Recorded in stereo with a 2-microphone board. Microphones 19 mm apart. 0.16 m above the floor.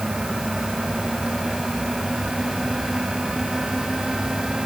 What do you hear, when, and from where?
Only background noise.